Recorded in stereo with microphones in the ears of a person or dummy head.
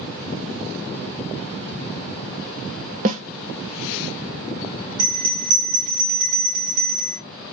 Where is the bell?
60° right (ahead or behind), 3 m.